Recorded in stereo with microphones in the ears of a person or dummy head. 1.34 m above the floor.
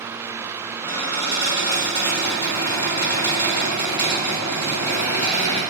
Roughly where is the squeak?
Left.